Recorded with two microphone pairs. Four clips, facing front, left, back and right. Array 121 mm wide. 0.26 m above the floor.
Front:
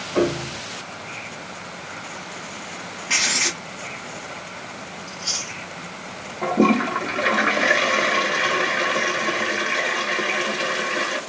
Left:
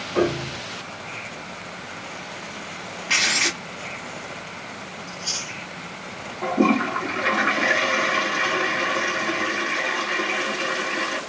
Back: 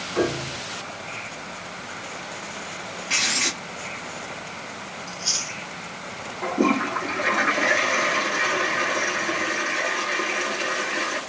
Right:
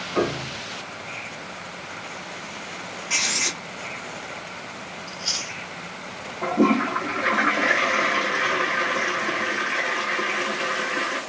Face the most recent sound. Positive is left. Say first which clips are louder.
# even, front 4 dB
turn(degrees=-10)